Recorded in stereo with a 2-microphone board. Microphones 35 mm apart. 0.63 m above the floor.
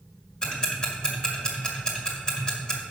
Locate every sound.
0.4 s ticking: 25° left (ahead or behind), 1.8 m